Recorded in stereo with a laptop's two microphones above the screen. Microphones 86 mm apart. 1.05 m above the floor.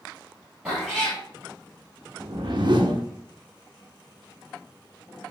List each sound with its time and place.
0.7 s a cat meowing: 5° right (ahead or behind), 1.9 m
2.2 s a whoosh: 60° right (ahead or behind), 0.5 m